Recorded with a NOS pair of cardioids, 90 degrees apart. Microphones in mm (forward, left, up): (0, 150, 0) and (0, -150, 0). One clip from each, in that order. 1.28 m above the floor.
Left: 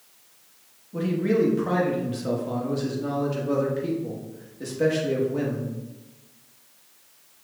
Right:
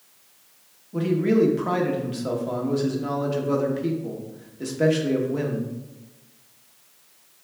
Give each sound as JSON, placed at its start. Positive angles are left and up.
{"t": 0.9, "sound": "a man speaking", "azimuth_deg": -15, "distance_m": 1.3}